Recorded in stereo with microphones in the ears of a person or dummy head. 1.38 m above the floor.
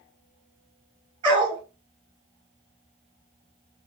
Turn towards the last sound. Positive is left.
turn(degrees=-35)  # may be behind; listen again after turning